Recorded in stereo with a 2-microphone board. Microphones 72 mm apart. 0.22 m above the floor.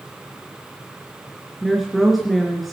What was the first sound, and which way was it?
A woman speaking, centre (ahead or behind).